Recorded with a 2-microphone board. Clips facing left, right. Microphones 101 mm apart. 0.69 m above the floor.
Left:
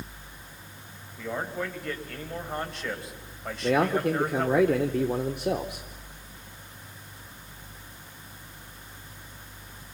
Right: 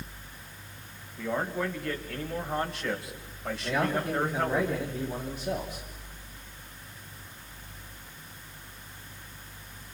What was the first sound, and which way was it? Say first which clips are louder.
A man speaking: right 2 dB; centre (ahead or behind).